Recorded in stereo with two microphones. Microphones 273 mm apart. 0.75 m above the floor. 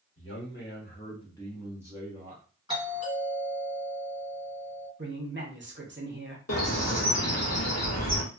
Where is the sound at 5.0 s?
40° right (ahead or behind), 0.8 m.